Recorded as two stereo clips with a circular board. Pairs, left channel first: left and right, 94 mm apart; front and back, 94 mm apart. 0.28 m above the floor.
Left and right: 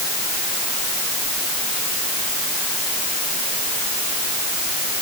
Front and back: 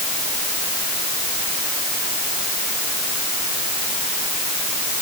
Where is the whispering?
No whispering in this recording.